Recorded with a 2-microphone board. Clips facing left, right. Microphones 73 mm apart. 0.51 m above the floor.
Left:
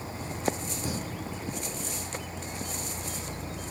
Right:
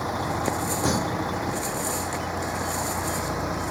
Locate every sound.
0.0 s a vehicle: 75° right (ahead or behind); by 3.7 s 80° right